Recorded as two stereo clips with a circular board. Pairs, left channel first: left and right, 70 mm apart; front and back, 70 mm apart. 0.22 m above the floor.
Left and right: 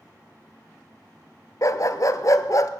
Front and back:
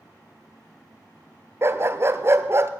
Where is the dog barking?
125° left, 1.1 m.